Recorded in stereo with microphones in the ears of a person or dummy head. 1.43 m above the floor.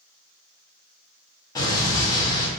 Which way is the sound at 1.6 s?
25° left (ahead or behind).